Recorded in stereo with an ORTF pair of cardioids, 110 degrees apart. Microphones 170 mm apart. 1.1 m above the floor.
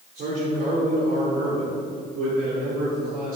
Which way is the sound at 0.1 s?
60° right.